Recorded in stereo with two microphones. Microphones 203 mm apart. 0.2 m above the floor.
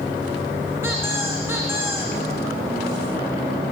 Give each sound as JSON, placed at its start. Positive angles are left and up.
{"t": 0.8, "sound": "a squeak", "side_deg": -10, "distance_m": 4.5}